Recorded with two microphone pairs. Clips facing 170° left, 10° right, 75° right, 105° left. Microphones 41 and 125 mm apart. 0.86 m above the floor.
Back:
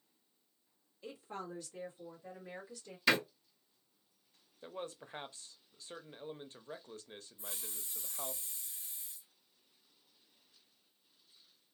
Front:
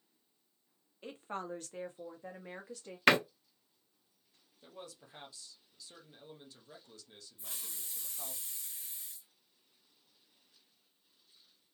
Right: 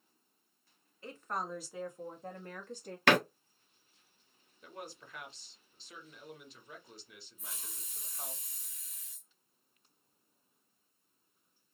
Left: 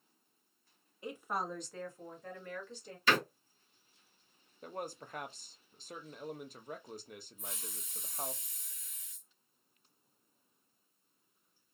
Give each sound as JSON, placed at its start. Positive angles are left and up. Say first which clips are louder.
{"t": 1.0, "sound": "a woman speaking", "louder": "front 3 dB, left 1 dB", "azimuth_deg": 35, "distance_m": 0.9}
{"t": 3.1, "sound": "a door slam", "louder": "front 4 dB, right 5 dB", "azimuth_deg": -50, "distance_m": 0.6}
{"t": 4.6, "sound": "a man speaking", "louder": "back 6 dB, left 5 dB", "azimuth_deg": 135, "distance_m": 0.6}
{"t": 7.4, "sound": "a hiss", "louder": "front 1 dB, left 4 dB", "azimuth_deg": -25, "distance_m": 1.4}